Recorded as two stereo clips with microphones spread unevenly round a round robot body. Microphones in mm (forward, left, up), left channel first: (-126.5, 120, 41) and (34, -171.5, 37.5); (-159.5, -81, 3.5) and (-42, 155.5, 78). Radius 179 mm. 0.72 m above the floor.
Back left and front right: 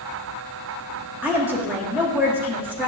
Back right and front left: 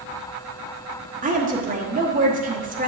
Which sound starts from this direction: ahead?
A woman speaking, at 1.2 s.